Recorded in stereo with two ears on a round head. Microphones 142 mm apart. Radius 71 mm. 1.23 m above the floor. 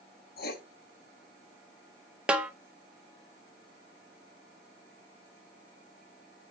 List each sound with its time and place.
0.4 s writing: 65° left (ahead or behind), 1.2 m
2.3 s a snare drum: 5° right (ahead or behind), 0.7 m